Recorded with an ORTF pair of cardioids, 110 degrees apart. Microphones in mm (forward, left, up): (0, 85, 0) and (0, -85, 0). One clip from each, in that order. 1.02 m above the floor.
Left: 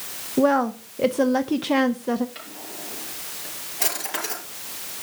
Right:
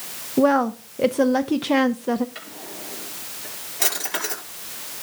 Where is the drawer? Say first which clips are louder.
Right 1 dB; 15° right, 5 m.